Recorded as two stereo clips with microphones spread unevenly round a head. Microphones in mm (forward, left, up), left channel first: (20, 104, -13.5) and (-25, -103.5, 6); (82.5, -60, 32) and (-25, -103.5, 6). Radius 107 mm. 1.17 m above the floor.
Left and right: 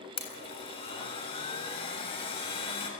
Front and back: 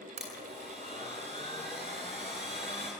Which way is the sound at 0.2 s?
145° left.